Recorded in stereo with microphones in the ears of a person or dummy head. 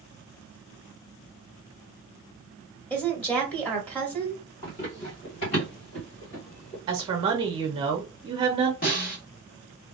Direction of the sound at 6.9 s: 30° right (ahead or behind).